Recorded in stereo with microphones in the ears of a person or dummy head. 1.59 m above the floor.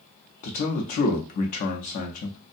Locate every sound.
0.4 s a man speaking: 40° left (ahead or behind), 0.5 m